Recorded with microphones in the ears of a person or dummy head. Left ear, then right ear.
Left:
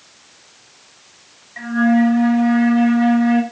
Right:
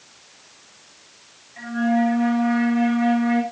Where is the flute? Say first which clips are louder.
Left 5 dB; 80° left, 8.5 m.